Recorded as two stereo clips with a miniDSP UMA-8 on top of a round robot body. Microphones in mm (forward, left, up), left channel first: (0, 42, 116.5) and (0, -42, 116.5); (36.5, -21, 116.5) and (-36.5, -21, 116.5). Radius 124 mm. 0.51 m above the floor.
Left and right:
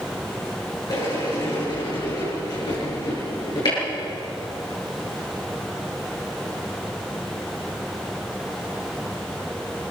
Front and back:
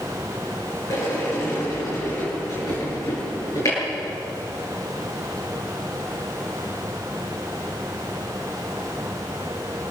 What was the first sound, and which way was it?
A sliding door, 50° left.